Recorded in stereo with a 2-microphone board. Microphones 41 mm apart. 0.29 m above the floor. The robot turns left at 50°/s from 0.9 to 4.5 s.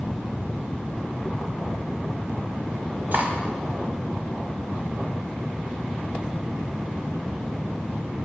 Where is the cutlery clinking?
50° right (ahead or behind), 0.9 m.